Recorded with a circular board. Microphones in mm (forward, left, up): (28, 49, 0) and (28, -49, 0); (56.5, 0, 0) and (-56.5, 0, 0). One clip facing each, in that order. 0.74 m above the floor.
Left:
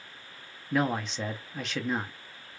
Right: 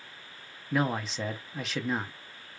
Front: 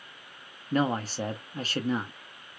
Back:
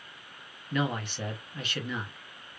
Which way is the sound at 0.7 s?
Straight ahead.